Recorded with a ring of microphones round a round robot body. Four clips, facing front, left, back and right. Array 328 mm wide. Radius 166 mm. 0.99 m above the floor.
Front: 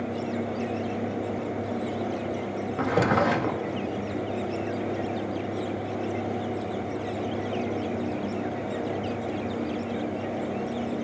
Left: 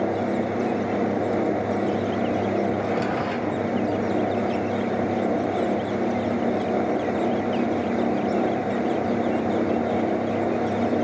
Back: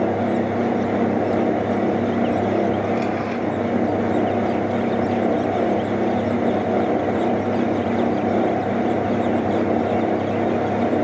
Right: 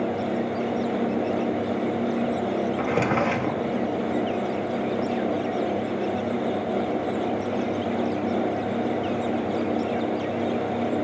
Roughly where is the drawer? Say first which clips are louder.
Right 1 dB, back 2 dB; ahead right.